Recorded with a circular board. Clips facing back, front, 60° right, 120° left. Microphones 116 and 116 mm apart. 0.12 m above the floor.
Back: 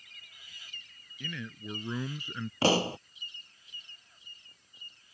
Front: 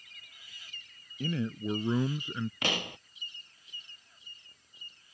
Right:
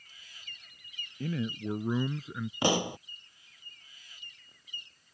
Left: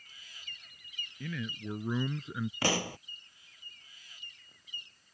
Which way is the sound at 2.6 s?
130° right.